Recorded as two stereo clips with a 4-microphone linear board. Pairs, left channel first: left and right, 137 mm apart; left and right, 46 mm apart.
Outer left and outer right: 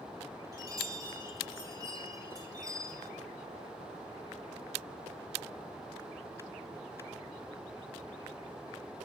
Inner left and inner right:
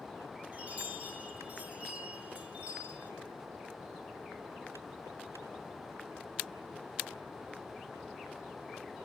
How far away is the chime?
About 4.5 m.